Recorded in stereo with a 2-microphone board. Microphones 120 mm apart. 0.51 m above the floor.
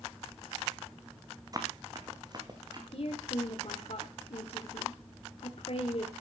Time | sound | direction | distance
1.5 | running footsteps | 30° right (ahead or behind) | 2 m
2.9 | a woman speaking | 55° left (ahead or behind) | 1.8 m